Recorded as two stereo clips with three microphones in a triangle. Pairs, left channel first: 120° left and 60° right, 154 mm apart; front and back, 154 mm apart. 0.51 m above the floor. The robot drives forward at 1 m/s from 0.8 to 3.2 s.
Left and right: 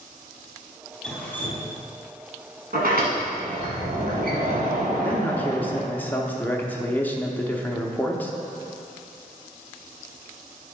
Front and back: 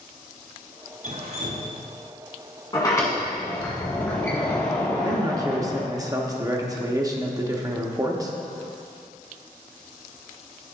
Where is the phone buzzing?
No phone buzzing in this recording.